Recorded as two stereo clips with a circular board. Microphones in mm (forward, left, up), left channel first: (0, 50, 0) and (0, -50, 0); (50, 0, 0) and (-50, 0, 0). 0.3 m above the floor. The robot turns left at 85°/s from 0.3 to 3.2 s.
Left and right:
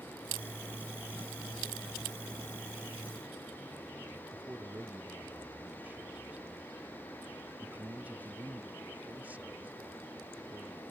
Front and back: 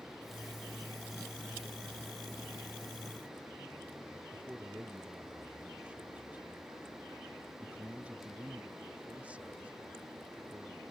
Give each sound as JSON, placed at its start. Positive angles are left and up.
{"t": 4.3, "sound": "a man speaking", "azimuth_deg": -130}